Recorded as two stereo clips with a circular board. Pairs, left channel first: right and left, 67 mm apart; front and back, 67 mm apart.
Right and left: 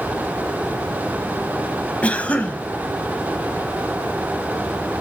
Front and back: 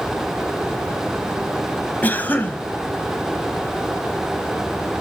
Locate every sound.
2.0 s a cough: 35° right, 1.1 m